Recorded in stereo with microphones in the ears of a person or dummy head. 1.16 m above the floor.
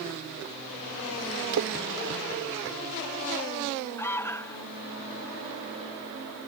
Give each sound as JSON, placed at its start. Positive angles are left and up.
{"t": 1.5, "sound": "a splash", "side_deg": -70}
{"t": 4.0, "sound": "an alarm", "side_deg": 15}